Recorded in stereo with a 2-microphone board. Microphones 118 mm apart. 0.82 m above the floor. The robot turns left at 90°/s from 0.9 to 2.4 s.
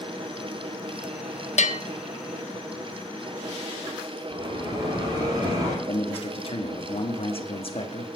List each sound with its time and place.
1.6 s a bell: 75° left (ahead or behind), 0.5 m
4.3 s a bell: 35° right (ahead or behind), 7.5 m
5.9 s a man speaking: 50° left (ahead or behind), 1.3 m